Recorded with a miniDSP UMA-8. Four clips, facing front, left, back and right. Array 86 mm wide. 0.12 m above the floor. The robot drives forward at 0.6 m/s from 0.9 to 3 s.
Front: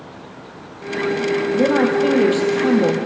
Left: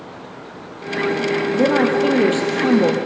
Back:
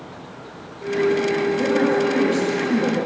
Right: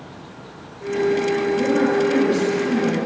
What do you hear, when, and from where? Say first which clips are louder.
1.5 s a woman speaking: left 4 dB, front 5 dB; 50° left, 4.5 m; by 3.0 s 60° left, 4 m